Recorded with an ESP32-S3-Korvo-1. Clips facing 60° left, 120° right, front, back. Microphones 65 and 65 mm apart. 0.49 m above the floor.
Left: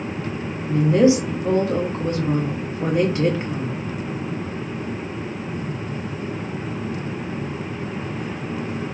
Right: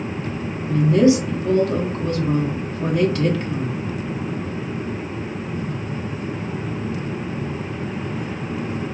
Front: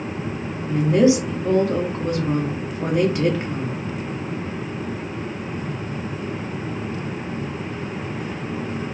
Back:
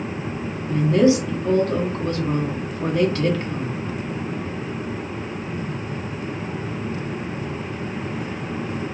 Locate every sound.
0.7 s a woman speaking: 45° left, 0.9 m